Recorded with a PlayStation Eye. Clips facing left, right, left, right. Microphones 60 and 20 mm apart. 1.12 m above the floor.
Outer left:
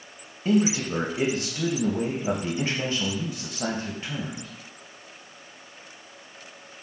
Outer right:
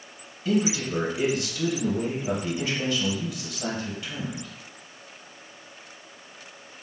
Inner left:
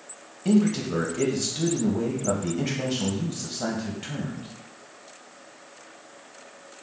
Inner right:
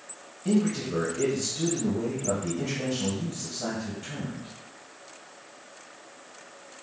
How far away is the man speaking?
About 0.8 m.